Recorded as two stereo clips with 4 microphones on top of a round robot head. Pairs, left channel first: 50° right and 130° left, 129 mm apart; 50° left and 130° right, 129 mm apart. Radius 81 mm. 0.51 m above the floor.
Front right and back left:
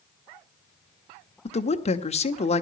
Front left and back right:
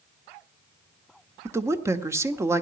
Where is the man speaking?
65° right, 1.4 m.